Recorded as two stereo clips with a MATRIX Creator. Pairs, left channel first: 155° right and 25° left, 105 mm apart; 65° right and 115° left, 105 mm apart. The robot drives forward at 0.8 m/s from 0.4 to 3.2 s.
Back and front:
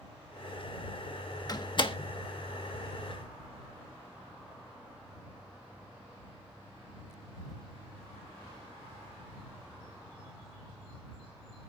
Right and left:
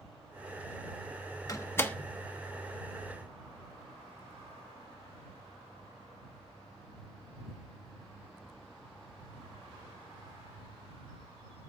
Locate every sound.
1.5 s a door slam: 115° right, 0.8 m; by 2.0 s 140° right, 1.0 m